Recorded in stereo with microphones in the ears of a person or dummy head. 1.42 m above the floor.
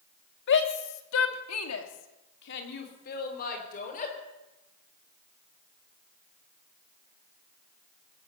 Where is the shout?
60° left (ahead or behind), 3 m; by 4.1 s 45° left (ahead or behind), 5.5 m.